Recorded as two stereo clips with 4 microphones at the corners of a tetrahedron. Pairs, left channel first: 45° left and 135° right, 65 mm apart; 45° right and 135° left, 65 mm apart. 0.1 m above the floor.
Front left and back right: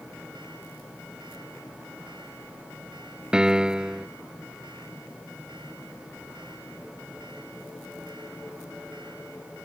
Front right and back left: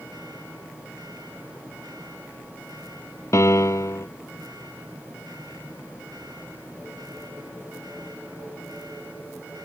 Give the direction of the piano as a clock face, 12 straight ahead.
2 o'clock.